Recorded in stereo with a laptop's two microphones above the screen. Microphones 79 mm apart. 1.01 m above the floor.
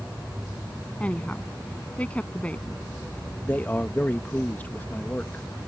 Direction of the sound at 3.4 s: 20° left (ahead or behind).